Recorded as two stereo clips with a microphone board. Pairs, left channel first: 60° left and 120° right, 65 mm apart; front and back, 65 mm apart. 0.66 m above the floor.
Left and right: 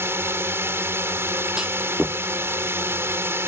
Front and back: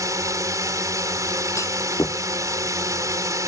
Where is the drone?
165° right.